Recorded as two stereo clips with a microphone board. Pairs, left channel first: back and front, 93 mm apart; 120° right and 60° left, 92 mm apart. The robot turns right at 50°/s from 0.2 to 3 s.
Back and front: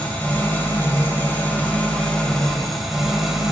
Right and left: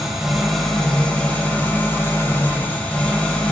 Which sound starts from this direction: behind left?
An engine running, at 0.0 s.